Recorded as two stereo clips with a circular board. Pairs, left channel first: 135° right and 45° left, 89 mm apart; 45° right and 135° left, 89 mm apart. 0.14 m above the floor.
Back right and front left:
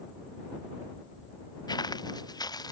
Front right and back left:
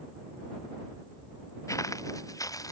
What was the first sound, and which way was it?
Footsteps, 95° right.